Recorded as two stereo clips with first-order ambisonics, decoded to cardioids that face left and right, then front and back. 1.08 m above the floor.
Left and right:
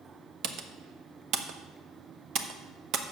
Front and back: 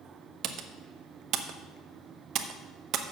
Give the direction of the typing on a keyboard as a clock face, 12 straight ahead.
4 o'clock.